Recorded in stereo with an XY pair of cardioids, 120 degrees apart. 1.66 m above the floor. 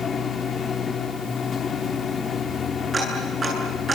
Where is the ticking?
30° right, 8.5 m.